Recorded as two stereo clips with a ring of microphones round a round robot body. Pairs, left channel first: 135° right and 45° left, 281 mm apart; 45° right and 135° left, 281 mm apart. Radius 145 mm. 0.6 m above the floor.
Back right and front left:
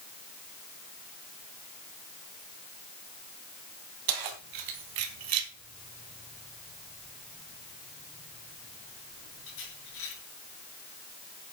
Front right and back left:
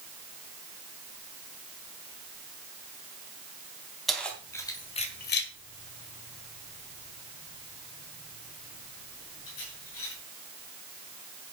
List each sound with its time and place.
4.1 s keys jangling: 45° left, 3 m; by 10.1 s 90° right, 7 m